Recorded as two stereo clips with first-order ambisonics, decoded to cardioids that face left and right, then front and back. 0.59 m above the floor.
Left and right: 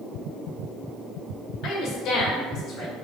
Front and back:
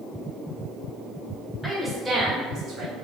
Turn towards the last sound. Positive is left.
turn(degrees=140)